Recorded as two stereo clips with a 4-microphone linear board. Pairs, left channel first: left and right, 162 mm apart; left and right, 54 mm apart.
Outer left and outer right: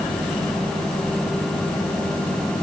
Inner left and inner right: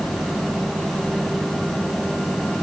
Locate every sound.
Only background noise.